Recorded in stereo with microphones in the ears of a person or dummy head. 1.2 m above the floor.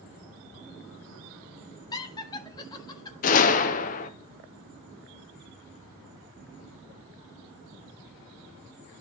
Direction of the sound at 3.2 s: 40° left (ahead or behind).